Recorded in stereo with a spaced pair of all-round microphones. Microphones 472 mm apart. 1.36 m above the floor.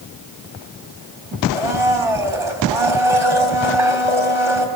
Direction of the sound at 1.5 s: 65° right (ahead or behind).